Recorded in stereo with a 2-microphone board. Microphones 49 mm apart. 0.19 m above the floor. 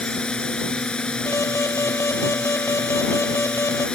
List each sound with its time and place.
0.0 s a drone: 15° left (ahead or behind)
1.3 s an alarm: 75° left (ahead or behind)